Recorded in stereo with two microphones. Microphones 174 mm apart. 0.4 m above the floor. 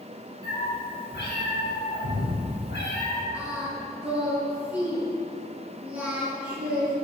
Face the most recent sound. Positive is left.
turn(degrees=-10)  # may be behind; listen again after turning